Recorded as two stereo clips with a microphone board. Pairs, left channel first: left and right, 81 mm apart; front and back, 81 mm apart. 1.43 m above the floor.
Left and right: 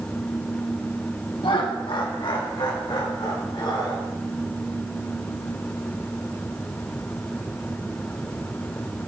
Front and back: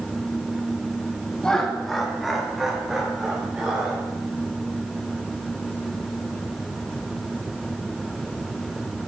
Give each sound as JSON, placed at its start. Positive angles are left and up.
{"t": 1.4, "sound": "laughter", "azimuth_deg": 80, "distance_m": 1.3}